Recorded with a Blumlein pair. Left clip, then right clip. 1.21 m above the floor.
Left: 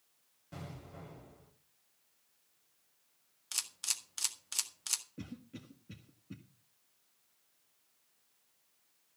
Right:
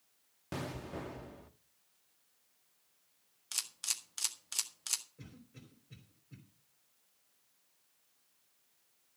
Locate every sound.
0.5 s an explosion: 35° right, 1.3 m
3.5 s a camera shutter: 5° left, 1.6 m
5.2 s a cough: 45° left, 1.9 m